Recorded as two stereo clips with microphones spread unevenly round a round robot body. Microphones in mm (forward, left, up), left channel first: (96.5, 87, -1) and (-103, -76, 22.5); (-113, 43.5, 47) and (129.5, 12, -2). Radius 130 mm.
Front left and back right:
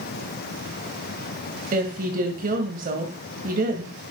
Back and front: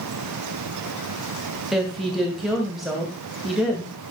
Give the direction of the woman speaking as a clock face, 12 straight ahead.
3 o'clock.